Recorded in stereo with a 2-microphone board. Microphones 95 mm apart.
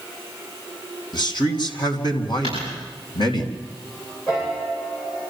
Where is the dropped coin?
85° left, 9.5 m.